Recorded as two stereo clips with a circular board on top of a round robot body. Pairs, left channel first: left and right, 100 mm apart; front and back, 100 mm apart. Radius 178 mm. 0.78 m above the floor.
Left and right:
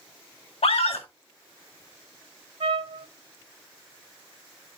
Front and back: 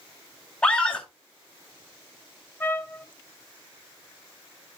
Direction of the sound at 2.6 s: 70° right.